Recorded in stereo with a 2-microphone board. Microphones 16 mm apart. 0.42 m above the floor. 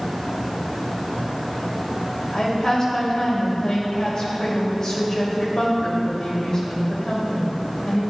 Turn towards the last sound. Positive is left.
turn(degrees=50)  # may be behind; listen again after turning